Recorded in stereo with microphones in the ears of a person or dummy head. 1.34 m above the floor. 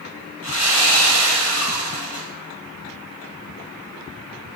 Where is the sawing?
70° left (ahead or behind), 1.7 m.